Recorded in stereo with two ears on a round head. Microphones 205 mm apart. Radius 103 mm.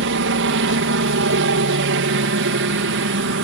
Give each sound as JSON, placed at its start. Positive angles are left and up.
{"t": 0.0, "sound": "a helicopter", "side_deg": -60}